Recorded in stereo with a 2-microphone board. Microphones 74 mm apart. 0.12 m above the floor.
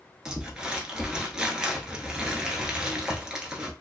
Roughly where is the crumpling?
Centre.